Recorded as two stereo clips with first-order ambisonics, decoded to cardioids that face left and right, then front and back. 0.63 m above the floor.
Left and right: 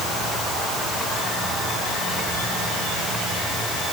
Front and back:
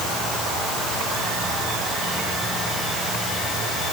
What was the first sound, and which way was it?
Only background noise.